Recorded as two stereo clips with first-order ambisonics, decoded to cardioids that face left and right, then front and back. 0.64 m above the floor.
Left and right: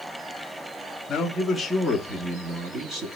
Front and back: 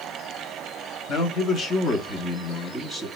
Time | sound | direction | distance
1.1 | a man speaking | 35° left | 1.0 m